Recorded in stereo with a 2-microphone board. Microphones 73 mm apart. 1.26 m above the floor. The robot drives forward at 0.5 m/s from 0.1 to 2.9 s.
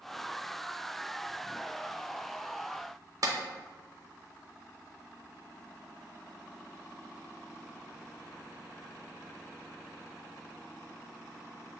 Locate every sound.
3.2 s a clap: 55° right (ahead or behind), 0.7 m